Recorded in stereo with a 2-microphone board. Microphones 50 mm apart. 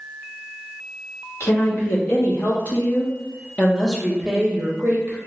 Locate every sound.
1.4 s a woman speaking: 60° left (ahead or behind), 1.5 m; by 5.2 s 35° right (ahead or behind), 0.9 m